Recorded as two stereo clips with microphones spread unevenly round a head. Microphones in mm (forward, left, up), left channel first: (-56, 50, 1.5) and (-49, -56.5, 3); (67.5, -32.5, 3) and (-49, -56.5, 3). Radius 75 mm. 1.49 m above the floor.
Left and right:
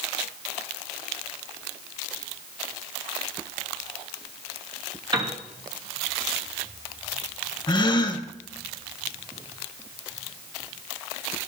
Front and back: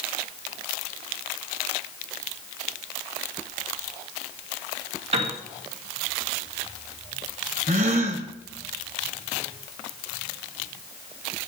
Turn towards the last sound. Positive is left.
turn(degrees=140)